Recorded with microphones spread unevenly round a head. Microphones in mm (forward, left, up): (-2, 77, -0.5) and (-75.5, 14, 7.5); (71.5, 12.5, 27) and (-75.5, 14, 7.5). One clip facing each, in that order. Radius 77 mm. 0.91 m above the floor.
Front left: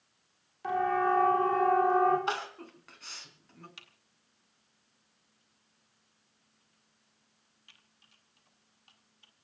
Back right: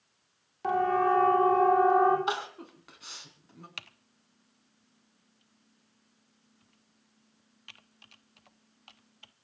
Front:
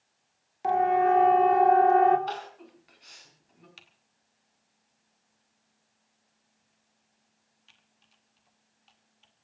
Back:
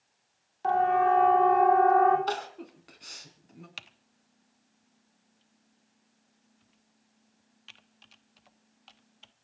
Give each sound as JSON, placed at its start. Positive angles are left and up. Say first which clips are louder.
{"t": 0.6, "sound": "a siren", "louder": "back right 2 dB, front 1 dB", "azimuth_deg": -80, "distance_m": 3.5}
{"t": 2.3, "sound": "crying", "louder": "back right 2 dB, back 3 dB", "azimuth_deg": 145, "distance_m": 4.0}
{"t": 3.8, "sound": "typing on a keyboard", "louder": "back right 8 dB, back 7 dB", "azimuth_deg": -160, "distance_m": 0.9}